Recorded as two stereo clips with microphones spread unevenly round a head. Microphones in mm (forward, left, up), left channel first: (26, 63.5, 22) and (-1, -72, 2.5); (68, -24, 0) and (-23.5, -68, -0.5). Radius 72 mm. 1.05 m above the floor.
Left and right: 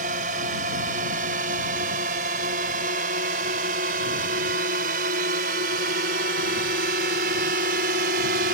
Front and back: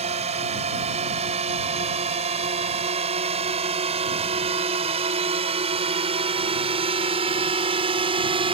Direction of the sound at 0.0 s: 140° right.